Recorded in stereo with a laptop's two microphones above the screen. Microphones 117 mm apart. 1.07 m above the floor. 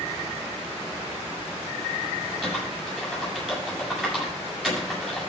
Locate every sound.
2.4 s typing on a keyboard: 5° left (ahead or behind), 8 m